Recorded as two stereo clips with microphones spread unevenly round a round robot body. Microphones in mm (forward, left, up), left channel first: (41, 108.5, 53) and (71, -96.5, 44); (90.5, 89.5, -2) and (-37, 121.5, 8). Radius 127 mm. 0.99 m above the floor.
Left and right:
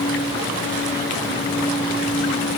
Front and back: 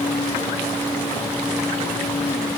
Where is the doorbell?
I don't hear a doorbell.